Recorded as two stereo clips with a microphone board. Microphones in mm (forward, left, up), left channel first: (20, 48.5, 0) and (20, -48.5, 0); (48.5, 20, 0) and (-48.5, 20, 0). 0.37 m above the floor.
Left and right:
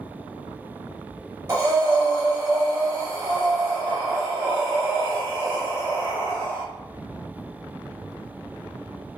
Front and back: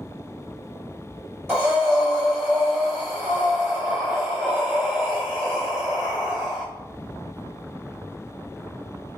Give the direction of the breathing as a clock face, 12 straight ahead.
4 o'clock.